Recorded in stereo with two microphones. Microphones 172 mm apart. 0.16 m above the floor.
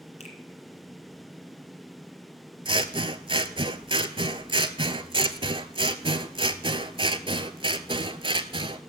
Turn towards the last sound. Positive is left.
turn(degrees=-30)  # may be behind; listen again after turning